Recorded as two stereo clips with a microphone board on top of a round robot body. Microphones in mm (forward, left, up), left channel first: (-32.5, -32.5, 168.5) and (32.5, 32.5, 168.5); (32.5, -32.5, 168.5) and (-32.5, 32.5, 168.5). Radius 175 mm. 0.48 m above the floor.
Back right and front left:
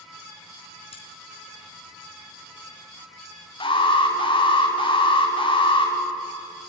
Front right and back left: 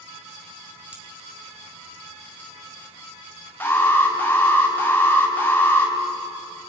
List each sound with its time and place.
0.9 s cutlery clinking: 150° right, 5 m
3.6 s an alarm: 115° right, 4.5 m